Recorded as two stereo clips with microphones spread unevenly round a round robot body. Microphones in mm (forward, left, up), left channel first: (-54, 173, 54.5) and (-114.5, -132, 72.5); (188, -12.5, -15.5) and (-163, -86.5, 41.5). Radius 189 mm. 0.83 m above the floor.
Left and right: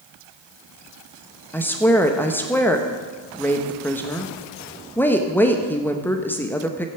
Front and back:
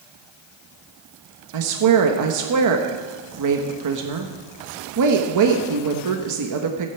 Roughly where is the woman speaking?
Behind.